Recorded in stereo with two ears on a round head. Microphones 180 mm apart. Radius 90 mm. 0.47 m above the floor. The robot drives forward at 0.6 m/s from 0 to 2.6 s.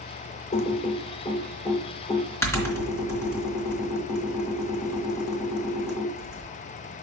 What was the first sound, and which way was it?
Typing on a keyboard, 35° left (ahead or behind).